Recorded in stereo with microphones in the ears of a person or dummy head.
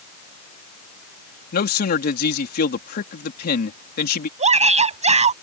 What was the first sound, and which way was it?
A man speaking, 55° left (ahead or behind).